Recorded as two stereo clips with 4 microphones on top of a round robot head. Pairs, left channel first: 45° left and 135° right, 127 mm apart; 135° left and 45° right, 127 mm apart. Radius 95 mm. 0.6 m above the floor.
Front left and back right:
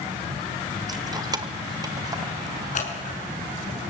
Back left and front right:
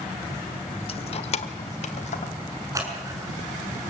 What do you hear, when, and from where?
0.9 s keys jangling: 170° left, 1.1 m; by 2.3 s 165° left, 3.5 m
2.8 s scissors: 20° left, 6.5 m